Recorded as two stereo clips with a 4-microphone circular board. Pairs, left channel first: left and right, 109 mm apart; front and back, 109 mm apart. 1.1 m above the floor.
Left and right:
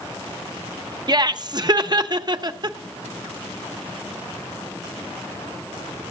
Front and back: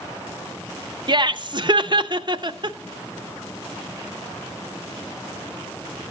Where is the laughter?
140° right, 0.5 m.